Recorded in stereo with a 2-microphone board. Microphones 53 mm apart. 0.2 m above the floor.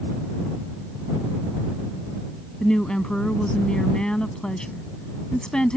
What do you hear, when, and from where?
2.6 s a woman speaking: 15° left (ahead or behind)